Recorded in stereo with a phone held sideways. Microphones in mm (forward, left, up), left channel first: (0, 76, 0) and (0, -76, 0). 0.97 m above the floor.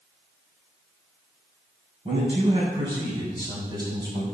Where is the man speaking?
40° right (ahead or behind), 6.5 m; by 4.2 s 25° right (ahead or behind), 7.5 m.